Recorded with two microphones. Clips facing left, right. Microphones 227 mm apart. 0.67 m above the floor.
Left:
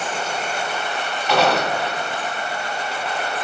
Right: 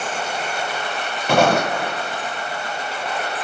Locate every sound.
1.3 s footsteps: 50° right (ahead or behind), 1.0 m